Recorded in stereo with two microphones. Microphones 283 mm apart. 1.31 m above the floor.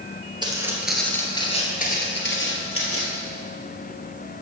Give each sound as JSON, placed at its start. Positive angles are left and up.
{"t": 0.4, "sound": "footsteps", "side_deg": -15, "distance_m": 1.8}